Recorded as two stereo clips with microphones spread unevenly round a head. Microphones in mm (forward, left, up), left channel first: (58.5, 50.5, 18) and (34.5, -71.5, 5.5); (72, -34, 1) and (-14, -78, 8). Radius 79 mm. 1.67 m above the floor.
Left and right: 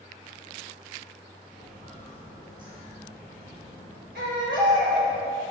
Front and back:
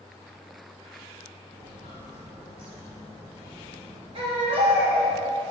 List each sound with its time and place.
1.5 s footsteps: 170° right, 3 m; by 5.2 s 155° right, 4.5 m
4.2 s a baby crying: 140° right, 1.7 m